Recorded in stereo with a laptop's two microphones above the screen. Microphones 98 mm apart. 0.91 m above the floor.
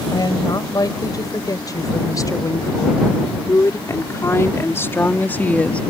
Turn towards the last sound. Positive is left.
turn(degrees=10)  # may be behind; listen again after turning